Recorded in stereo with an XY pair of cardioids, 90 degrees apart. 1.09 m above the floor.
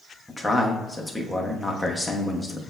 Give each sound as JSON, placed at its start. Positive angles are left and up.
{"t": 0.3, "sound": "a man speaking", "azimuth_deg": 10, "distance_m": 1.1}